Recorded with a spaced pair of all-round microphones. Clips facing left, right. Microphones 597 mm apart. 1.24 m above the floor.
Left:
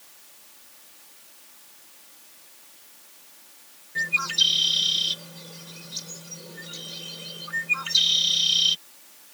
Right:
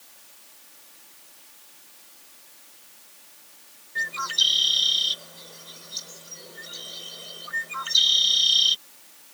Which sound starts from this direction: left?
A bird, at 4.0 s.